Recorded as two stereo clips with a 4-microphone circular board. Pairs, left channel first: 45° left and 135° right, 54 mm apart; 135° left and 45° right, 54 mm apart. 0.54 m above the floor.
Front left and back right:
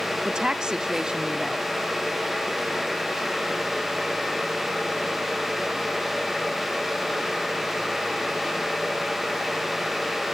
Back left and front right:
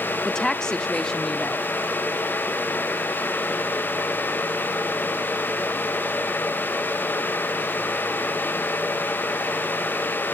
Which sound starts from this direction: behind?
A woman speaking, at 0.2 s.